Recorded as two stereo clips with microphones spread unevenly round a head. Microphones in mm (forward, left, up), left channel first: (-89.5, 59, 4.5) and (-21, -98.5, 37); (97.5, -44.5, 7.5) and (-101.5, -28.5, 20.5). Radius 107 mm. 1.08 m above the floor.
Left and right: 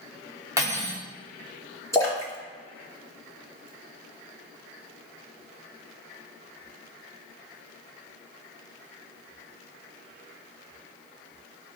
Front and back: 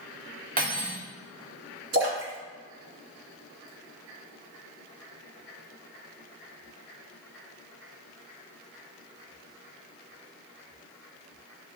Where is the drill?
No drill in this recording.